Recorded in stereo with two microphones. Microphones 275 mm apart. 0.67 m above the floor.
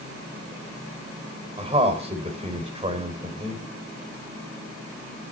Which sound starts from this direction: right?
A man speaking, at 1.6 s.